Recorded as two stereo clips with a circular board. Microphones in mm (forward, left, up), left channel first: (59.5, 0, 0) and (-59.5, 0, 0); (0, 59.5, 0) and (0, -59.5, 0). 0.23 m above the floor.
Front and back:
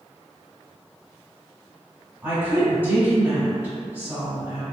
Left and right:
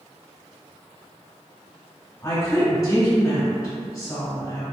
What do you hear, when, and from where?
2.2 s a woman speaking: 120° left, 1.3 m